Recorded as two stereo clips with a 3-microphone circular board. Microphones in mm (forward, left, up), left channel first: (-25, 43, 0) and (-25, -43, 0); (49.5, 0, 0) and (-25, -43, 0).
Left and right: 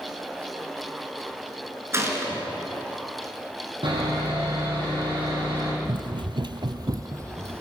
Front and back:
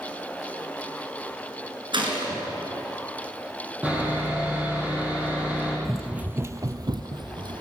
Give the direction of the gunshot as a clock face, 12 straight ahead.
5 o'clock.